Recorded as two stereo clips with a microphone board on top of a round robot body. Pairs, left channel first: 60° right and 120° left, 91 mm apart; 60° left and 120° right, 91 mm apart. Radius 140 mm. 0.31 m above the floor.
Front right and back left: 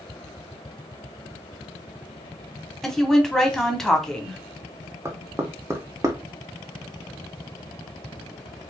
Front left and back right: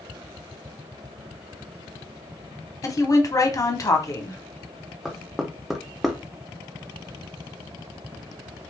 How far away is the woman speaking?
About 1.3 m.